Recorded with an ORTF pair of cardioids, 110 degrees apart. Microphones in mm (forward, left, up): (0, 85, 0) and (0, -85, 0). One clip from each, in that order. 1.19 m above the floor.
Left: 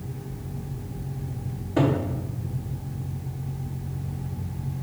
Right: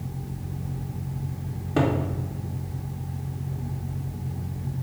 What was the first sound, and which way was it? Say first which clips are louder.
A cupboard door: left 1 dB; 40° right.